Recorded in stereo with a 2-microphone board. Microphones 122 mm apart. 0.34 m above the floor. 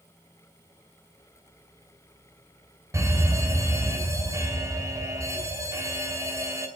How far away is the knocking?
No knocking in this recording.